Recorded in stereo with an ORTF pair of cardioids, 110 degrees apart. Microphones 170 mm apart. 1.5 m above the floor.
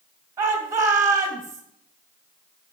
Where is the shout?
15° right, 2.0 m.